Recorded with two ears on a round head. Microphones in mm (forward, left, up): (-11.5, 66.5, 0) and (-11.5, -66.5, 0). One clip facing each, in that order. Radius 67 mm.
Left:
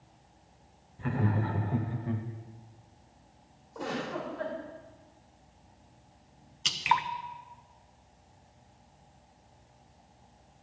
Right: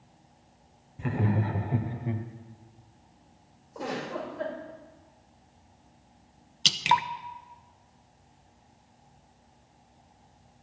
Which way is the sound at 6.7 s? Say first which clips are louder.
Right 3 dB; 35° right (ahead or behind).